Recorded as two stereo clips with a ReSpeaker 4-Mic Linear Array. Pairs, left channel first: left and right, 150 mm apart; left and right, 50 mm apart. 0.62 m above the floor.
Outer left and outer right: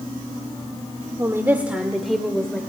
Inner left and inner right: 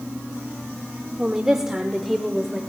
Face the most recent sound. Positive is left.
turn(degrees=10)  # may be behind; listen again after turning